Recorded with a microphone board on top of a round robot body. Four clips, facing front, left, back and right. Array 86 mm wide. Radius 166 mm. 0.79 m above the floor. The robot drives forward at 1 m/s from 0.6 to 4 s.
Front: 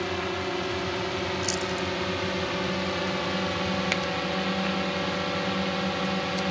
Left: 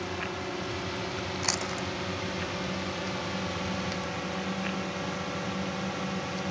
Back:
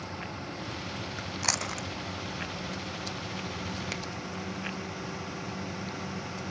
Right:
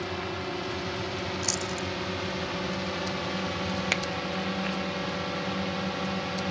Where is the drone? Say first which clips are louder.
Right 1 dB, front 10 dB; 5° right; by 6.5 s 10° right.